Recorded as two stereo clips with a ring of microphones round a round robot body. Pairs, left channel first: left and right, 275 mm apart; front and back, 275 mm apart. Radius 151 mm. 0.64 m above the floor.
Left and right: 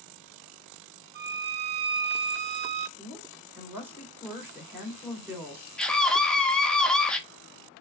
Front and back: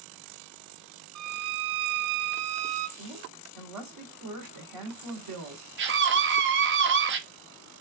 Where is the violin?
145° right, 0.5 m.